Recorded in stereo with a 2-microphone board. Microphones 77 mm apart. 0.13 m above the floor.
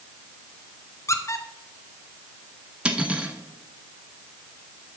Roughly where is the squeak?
Left.